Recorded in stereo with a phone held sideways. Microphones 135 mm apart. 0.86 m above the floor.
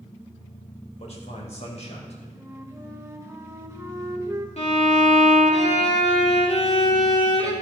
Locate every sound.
1.0 s a man speaking: 55° left (ahead or behind), 3 m
2.4 s a flute: 20° right (ahead or behind), 1.1 m
4.6 s a violin: 55° left (ahead or behind), 2 m